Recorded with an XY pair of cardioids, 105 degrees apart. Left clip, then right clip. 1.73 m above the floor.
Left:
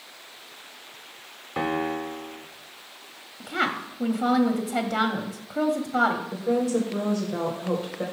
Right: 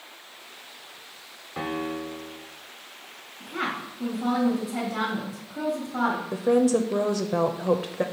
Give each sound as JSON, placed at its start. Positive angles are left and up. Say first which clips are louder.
{"t": 1.6, "sound": "a piano", "louder": "left 4 dB", "azimuth_deg": 45, "distance_m": 0.8}
{"t": 3.4, "sound": "a woman speaking", "louder": "left 4 dB", "azimuth_deg": 60, "distance_m": 0.9}
{"t": 6.3, "sound": "a woman speaking", "louder": "right 3 dB", "azimuth_deg": -45, "distance_m": 0.6}